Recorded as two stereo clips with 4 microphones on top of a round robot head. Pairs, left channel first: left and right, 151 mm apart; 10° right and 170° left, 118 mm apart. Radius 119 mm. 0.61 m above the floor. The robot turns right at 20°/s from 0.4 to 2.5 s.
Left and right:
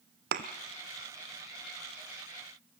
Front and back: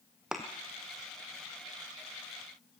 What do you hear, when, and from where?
0.3 s a thud: 105° right, 1.1 m